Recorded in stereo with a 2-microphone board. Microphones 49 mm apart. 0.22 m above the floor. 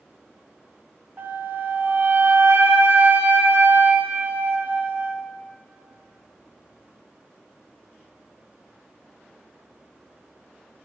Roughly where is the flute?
Right.